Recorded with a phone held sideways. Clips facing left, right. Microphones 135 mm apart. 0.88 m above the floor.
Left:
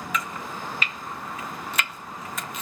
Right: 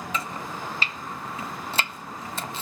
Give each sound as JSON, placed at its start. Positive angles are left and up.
{"t": 0.1, "sound": "chopping", "side_deg": -30, "distance_m": 0.5}